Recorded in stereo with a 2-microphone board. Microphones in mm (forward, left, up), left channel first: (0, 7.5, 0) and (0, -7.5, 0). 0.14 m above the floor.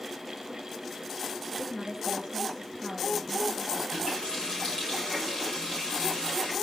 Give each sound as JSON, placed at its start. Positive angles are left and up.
{"t": 1.6, "sound": "a woman speaking", "side_deg": 5, "distance_m": 1.5}
{"t": 3.9, "sound": "a running tap", "side_deg": 80, "distance_m": 8.5}